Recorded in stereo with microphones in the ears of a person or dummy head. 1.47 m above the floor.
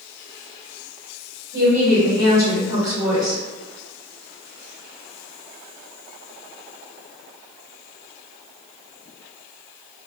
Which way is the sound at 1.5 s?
15° right (ahead or behind).